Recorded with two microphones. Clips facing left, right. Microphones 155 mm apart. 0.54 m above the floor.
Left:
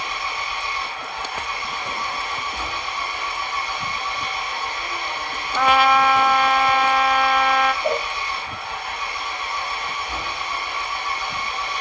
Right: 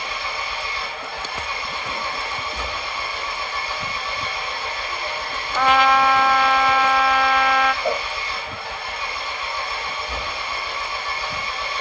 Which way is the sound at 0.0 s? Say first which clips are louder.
Even; 30° right (ahead or behind).